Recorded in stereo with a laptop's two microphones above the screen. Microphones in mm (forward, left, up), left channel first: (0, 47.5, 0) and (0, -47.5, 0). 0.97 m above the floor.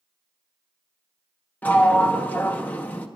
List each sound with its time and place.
1.6 s a sliding door: 20° left (ahead or behind), 0.6 m